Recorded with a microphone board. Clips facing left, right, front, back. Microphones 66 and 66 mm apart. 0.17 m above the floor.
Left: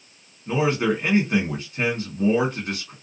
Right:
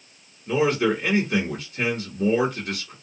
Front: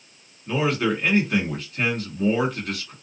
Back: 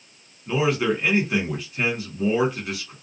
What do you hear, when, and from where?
0.5 s a man speaking: 100° left, 1.4 m